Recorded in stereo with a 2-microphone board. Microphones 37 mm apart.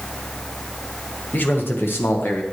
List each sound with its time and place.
1.3 s a man speaking: 60° left (ahead or behind), 1.5 m; by 2.4 s 65° left (ahead or behind), 1.3 m